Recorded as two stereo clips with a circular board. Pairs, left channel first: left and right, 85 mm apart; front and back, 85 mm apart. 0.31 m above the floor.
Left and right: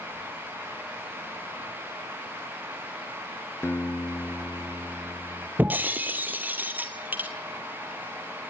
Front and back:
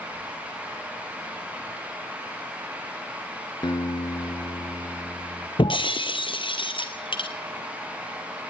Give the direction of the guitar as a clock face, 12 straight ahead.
11 o'clock.